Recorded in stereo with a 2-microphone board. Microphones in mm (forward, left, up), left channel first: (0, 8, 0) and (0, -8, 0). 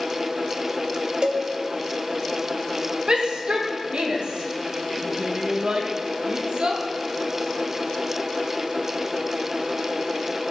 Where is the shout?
80° right, 2.5 m.